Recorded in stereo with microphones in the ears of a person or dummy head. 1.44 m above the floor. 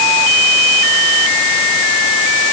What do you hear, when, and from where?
Only background noise.